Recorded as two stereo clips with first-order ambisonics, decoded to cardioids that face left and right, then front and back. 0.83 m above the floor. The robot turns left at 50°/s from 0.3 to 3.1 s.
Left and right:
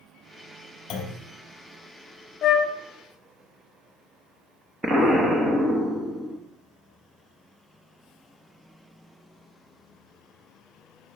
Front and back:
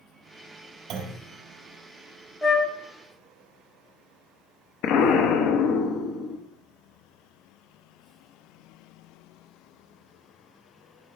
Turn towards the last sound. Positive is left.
turn(degrees=-15)